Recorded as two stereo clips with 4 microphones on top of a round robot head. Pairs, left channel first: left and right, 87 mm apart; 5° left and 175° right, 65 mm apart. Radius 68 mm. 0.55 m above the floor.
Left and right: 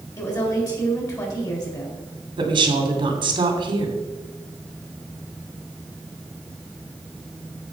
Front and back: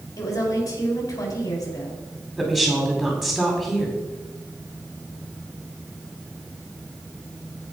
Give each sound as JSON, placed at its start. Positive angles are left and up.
{"t": 0.2, "sound": "a woman speaking", "azimuth_deg": 40, "distance_m": 4.0}
{"t": 2.4, "sound": "a woman speaking", "azimuth_deg": -85, "distance_m": 2.5}